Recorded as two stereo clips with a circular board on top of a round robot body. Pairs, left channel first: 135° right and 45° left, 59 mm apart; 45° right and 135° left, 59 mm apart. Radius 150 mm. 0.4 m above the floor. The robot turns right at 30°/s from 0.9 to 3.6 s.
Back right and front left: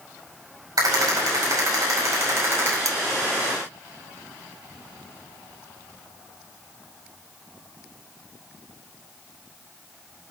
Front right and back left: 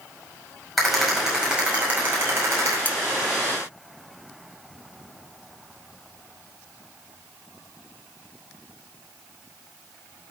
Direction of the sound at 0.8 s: 45° left.